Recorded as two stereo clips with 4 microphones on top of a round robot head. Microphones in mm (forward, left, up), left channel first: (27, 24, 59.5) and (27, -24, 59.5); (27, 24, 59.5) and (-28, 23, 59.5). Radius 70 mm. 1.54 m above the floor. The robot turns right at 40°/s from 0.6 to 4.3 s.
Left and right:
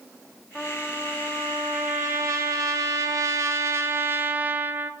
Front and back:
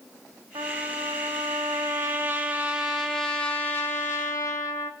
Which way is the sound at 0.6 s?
170° left.